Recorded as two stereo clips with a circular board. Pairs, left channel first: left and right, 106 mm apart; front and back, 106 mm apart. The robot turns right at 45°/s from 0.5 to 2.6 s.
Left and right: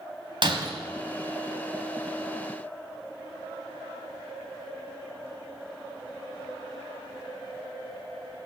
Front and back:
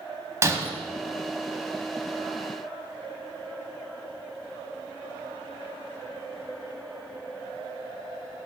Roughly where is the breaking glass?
Behind right.